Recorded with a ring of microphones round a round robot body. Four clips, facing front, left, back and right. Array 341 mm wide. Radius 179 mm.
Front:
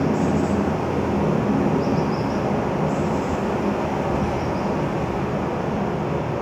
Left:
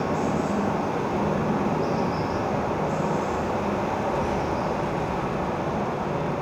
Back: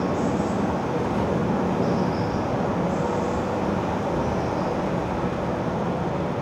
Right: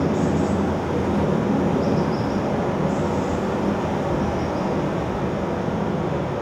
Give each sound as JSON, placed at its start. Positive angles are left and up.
{"t": 0.0, "sound": "running water", "azimuth_deg": -35, "distance_m": 5.5}